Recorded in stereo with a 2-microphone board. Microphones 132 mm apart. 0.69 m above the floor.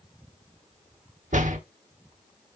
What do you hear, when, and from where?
1.3 s a door slam: 70° right (ahead or behind), 1.1 m